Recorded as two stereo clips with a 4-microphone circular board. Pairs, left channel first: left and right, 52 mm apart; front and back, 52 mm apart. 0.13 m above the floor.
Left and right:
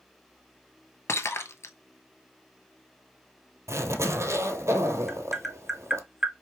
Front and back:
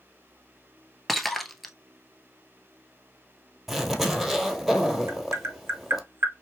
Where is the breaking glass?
90° left, 0.7 m.